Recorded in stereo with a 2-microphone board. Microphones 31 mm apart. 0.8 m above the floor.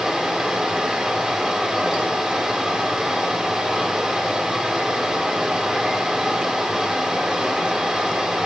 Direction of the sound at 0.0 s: 20° right (ahead or behind).